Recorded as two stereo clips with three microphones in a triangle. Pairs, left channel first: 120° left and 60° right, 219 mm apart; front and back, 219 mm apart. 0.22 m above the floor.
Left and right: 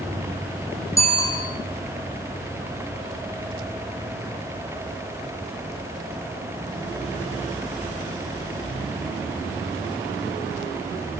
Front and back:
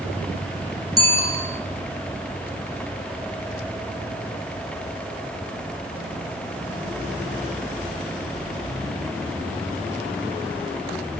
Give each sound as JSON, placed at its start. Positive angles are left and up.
{"t": 1.0, "sound": "a bicycle bell", "azimuth_deg": -165, "distance_m": 9.0}